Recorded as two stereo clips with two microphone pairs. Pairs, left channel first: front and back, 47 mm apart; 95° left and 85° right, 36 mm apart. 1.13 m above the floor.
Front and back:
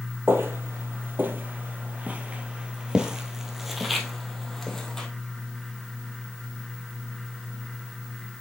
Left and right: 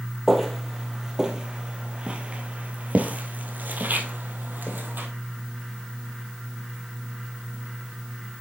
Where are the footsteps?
175° right, 1.8 m; by 5.1 s 75° right, 2 m.